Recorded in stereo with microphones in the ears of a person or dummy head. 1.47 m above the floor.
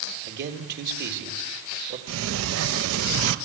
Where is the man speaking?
60° right (ahead or behind), 3 m.